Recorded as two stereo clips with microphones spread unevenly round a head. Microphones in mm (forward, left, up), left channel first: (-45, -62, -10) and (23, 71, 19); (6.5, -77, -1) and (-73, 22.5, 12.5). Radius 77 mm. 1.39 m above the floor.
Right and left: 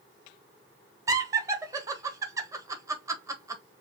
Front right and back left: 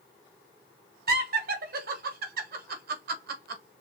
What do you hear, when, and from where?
1.1 s laughter: 135° left, 1.5 m